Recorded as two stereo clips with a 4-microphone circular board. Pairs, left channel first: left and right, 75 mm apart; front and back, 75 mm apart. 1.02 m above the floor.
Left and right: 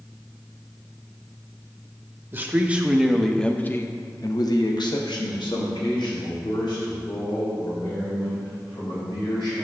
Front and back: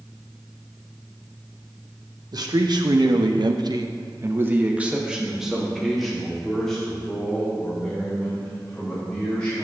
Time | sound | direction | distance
2.3 | a man speaking | 150° right | 1.1 m